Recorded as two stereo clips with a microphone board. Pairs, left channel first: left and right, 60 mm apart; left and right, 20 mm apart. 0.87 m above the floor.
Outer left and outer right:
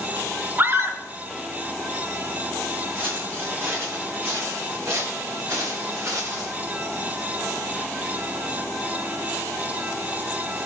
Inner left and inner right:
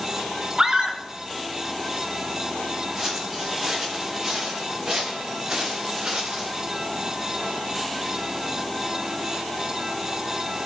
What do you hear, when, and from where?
0.6 s a scream: 45° right (ahead or behind), 3 m
3.0 s footsteps: 40° right (ahead or behind), 3.5 m; by 6.5 s 65° right (ahead or behind), 4.5 m